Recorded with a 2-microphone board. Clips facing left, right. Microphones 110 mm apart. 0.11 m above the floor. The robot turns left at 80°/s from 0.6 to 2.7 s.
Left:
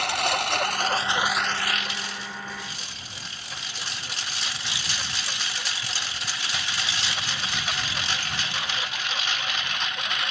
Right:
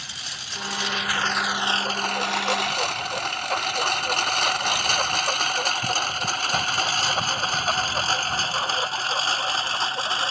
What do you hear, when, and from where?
0.0 s a lawn mower: 70° left (ahead or behind); by 10.3 s 35° right (ahead or behind)